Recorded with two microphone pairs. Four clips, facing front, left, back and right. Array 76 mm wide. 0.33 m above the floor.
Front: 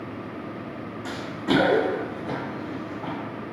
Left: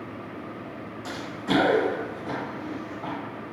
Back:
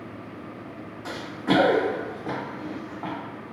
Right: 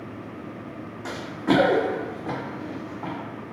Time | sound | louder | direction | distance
1.1 | running footsteps | right 5 dB, back 1 dB | 105° right | 0.7 m